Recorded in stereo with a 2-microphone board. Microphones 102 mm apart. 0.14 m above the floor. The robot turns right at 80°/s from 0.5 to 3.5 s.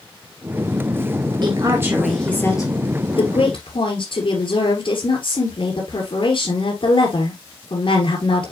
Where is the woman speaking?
55° right, 2.5 m; by 8.5 s 110° left, 2.5 m.